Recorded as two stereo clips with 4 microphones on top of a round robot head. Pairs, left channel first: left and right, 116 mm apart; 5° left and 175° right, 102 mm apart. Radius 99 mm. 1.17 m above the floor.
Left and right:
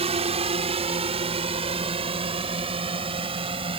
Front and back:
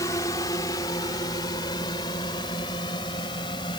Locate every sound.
0.0 s a drone: 60° right; by 3.8 s 50° right